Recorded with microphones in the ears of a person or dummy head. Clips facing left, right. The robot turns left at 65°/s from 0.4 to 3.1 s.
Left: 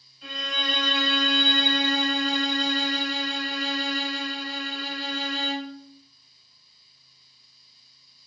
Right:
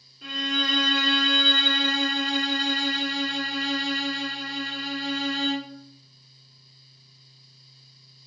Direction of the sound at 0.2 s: 135° right.